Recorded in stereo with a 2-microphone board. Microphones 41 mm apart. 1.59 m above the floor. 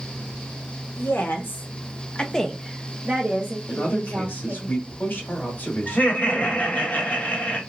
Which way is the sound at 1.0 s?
65° left (ahead or behind).